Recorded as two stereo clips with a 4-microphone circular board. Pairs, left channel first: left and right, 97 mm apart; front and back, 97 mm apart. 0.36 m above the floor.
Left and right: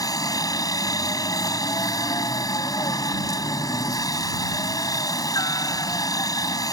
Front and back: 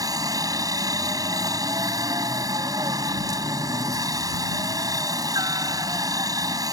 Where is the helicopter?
135° left.